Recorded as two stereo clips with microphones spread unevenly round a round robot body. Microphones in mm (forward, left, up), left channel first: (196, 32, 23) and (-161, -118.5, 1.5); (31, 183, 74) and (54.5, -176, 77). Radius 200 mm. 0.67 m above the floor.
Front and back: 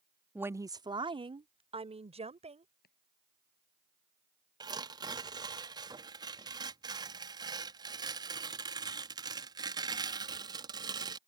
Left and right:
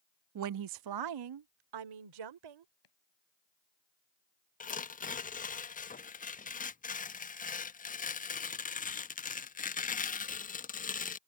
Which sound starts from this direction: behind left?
Tearing paper, at 4.6 s.